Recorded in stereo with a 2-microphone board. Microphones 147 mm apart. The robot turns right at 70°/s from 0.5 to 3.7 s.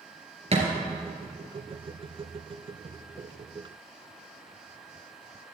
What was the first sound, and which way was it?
A thud, 45° right (ahead or behind).